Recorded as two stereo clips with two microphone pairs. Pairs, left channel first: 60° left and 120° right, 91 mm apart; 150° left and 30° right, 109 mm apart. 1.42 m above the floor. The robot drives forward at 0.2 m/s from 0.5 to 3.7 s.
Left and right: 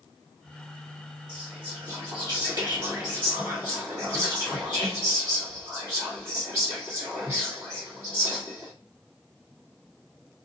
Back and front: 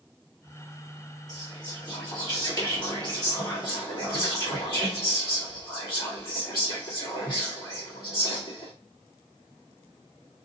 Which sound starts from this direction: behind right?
Whispering, at 1.3 s.